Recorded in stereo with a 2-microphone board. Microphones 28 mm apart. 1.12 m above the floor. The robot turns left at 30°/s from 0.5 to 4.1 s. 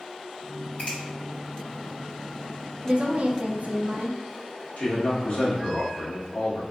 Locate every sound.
0.8 s a finger snap: 55° left (ahead or behind), 1.9 m; by 1.0 s 60° left (ahead or behind), 1.9 m
2.8 s a woman speaking: 40° right, 0.5 m; by 4.2 s 80° right, 0.5 m
4.8 s a man speaking: 60° left (ahead or behind), 1.3 m